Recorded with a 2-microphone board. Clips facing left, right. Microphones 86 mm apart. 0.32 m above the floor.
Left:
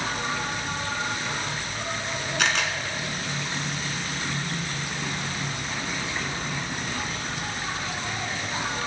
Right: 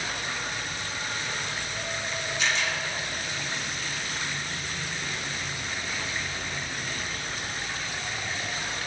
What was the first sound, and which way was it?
An insect, 80° left.